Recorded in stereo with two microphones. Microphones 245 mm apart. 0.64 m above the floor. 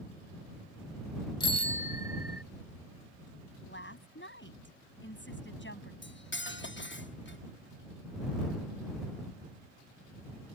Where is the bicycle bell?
20° left (ahead or behind); by 2.4 s 45° left (ahead or behind).